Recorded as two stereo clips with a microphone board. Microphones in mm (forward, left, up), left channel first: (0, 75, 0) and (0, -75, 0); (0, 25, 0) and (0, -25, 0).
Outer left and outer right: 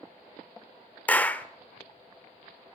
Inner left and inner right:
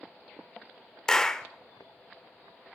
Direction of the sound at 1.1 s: 10° left (ahead or behind).